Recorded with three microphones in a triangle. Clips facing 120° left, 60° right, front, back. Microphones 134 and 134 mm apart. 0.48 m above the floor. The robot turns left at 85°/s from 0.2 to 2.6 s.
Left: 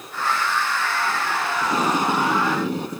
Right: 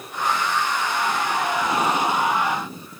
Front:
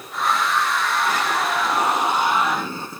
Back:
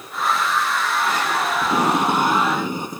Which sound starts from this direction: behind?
Tape being pulled, at 1.6 s.